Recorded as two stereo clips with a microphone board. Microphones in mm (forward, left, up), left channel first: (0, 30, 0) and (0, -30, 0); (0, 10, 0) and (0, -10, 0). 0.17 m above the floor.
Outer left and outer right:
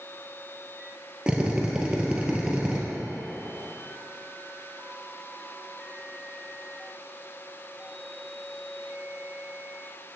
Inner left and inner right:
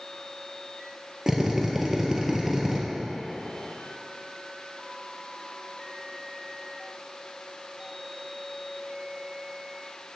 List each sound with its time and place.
1.3 s a drill: 20° right (ahead or behind), 1.5 m